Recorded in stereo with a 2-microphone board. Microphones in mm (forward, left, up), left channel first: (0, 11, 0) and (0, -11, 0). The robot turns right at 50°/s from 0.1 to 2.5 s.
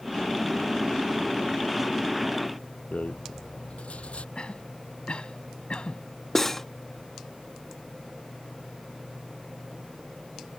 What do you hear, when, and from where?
2.9 s a rattle: 70° left (ahead or behind)
4.3 s a cough: 50° left (ahead or behind)
6.3 s cutlery clinking: 20° left (ahead or behind)